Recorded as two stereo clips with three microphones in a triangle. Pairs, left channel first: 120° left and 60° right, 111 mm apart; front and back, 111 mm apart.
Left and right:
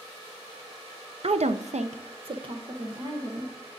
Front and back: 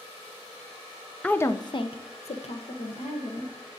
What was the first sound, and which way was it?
A woman speaking, 80° right.